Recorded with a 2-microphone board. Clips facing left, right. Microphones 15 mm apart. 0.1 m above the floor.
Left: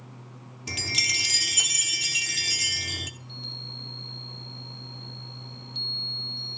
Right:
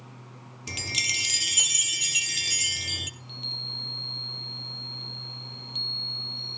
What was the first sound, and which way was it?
A chime, 10° right (ahead or behind).